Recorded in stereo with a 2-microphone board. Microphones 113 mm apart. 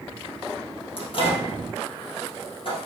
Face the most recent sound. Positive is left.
turn(degrees=50)  # may be behind; listen again after turning